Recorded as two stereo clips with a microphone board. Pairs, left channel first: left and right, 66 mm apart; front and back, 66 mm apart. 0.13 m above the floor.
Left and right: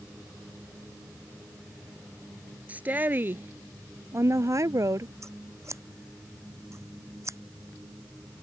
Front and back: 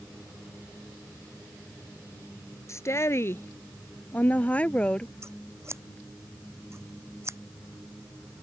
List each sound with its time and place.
2.7 s a woman speaking: 25° right; by 5.1 s 75° right
5.2 s scissors: 130° right